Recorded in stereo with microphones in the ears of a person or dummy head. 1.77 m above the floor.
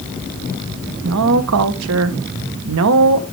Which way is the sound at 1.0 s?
85° right.